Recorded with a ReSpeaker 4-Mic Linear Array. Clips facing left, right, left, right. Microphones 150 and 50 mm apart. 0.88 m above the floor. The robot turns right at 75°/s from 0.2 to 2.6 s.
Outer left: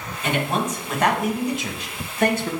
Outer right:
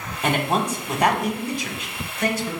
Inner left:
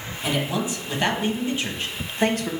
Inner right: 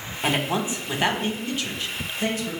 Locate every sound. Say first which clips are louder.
0.2 s a man speaking: outer right 1 dB, inner right 1 dB; 75° right, 1.0 m; by 2.5 s 95° left, 1.0 m